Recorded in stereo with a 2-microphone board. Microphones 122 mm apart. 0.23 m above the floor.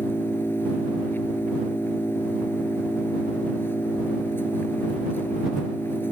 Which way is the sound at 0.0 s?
20° left (ahead or behind).